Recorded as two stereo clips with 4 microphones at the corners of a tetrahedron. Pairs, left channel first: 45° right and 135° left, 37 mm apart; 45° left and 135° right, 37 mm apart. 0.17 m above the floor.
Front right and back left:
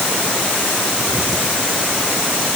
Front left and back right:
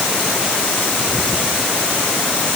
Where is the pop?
No pop in this recording.